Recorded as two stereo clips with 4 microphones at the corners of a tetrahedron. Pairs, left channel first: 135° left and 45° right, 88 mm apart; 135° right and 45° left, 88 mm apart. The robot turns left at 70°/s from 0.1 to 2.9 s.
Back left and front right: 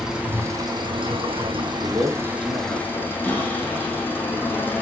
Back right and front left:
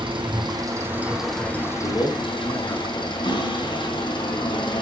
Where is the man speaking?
110° right, 4.5 m; by 3.1 s 175° left, 4.5 m.